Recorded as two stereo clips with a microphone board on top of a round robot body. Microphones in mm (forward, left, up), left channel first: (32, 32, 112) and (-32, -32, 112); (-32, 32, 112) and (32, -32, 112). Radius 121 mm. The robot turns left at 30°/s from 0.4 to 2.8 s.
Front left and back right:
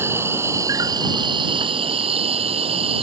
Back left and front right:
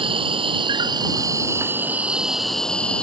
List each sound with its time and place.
0.0 s an insect: 70° right; by 3.0 s 145° right